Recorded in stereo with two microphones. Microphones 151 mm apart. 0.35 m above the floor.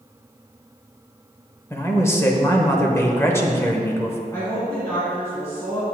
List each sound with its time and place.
1.7 s a man speaking: 15° left (ahead or behind), 1.1 m
4.3 s a woman speaking: 20° left (ahead or behind), 3 m